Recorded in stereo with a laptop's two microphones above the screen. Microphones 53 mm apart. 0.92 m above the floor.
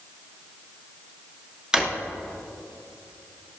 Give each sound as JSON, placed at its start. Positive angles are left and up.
{"t": 1.7, "sound": "a drawer", "side_deg": -15, "distance_m": 0.9}